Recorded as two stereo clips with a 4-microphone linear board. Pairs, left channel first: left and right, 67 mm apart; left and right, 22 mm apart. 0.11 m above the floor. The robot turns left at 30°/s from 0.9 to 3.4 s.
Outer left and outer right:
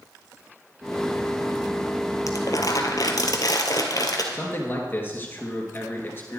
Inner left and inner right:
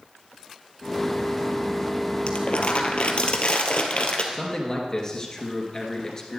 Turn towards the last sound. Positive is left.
turn(degrees=35)  # may be behind; listen again after turning